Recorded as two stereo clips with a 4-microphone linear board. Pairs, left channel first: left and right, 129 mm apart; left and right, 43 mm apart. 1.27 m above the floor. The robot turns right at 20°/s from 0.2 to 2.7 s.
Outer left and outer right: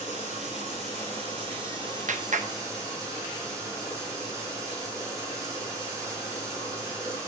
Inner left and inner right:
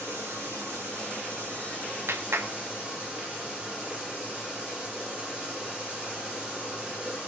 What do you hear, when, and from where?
0.0 s running water: 75° right, 8.5 m; by 7.3 s 25° right, 8.5 m
2.1 s a clap: 70° right (ahead or behind), 0.9 m; by 2.5 s 75° right (ahead or behind), 0.9 m